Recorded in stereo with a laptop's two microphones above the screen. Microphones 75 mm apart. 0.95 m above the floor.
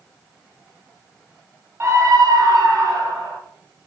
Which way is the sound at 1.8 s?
35° right (ahead or behind).